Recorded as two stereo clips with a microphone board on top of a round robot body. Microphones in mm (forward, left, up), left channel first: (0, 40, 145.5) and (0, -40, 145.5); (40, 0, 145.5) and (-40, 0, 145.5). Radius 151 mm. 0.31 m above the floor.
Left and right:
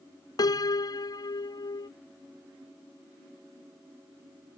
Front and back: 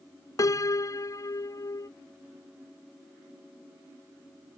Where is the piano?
50° left.